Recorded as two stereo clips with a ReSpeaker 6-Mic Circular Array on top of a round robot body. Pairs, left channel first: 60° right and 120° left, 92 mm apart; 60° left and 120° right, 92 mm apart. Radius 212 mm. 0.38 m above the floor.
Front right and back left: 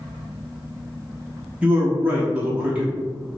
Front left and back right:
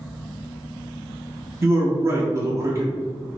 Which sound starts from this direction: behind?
A man speaking, at 1.6 s.